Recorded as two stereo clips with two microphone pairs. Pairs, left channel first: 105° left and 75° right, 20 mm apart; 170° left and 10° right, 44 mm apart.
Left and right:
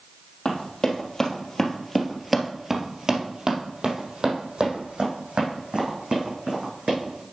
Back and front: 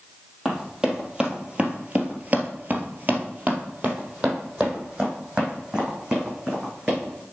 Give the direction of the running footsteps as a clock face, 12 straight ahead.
10 o'clock.